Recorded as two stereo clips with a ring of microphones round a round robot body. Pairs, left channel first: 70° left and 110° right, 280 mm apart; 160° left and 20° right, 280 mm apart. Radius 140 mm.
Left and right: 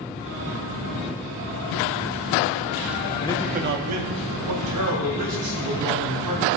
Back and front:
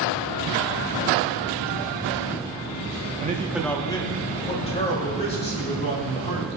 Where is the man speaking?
20° left, 0.6 m; by 6.5 s 135° right, 4.5 m.